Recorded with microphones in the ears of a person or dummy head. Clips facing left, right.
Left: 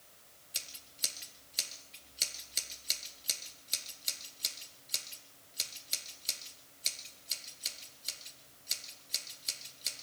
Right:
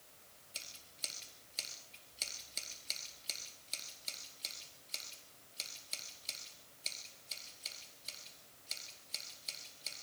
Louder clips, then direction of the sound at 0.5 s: Left 3 dB; 10° left (ahead or behind).